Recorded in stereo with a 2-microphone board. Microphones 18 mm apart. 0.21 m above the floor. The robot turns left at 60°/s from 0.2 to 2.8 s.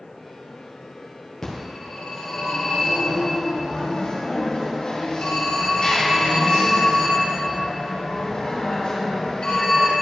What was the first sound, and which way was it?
A phone ringing, 160° left.